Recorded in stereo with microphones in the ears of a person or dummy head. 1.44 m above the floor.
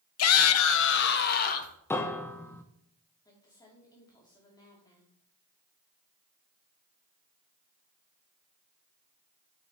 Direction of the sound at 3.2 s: 25° left (ahead or behind).